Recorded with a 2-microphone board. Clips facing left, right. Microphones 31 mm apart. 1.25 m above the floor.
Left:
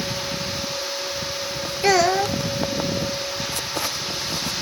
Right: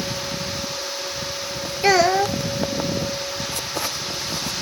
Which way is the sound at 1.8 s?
15° right (ahead or behind).